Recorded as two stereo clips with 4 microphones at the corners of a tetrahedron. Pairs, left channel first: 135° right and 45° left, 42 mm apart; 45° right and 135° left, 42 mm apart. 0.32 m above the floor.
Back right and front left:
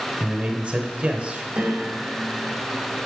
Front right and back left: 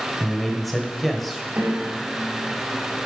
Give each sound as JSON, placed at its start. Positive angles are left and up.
{"t": 0.2, "sound": "a man speaking", "azimuth_deg": 45, "distance_m": 1.1}
{"t": 1.6, "sound": "a piano", "azimuth_deg": 100, "distance_m": 1.8}